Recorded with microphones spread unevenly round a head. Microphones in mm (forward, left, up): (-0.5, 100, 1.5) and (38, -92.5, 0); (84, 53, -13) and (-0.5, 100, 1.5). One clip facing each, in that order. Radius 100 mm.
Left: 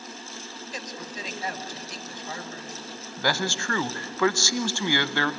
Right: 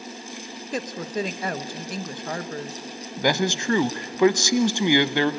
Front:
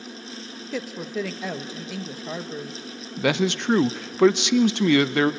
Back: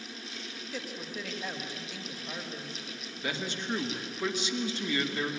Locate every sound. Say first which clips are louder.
0.7 s a woman speaking: right 11 dB, front 11 dB; 35° right, 1.1 m
3.2 s a man speaking: right 5 dB, front 13 dB; 5° right, 0.7 m